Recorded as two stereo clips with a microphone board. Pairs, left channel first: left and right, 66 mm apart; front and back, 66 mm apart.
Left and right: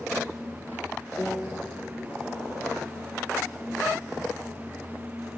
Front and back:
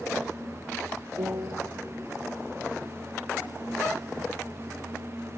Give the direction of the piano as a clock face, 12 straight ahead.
7 o'clock.